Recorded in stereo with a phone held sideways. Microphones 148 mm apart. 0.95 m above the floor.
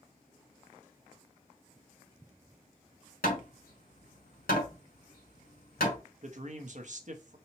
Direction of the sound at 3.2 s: 75° left (ahead or behind).